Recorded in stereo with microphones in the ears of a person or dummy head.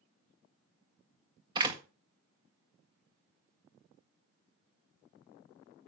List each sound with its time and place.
1.6 s a door slam: 30° right (ahead or behind), 1.6 m